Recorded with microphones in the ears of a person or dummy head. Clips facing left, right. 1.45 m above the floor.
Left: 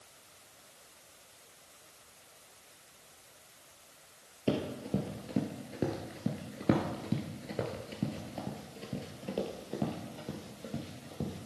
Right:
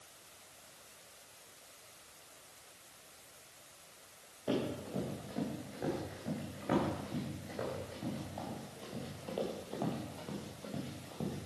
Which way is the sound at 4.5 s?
35° left (ahead or behind).